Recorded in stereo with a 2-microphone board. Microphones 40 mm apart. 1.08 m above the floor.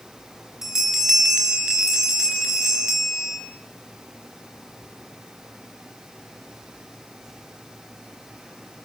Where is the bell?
15° right (ahead or behind), 7 m.